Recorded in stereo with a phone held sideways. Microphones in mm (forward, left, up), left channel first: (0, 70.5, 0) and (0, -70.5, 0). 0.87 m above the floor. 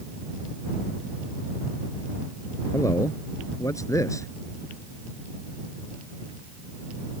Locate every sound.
2.7 s a man speaking: 20° left (ahead or behind)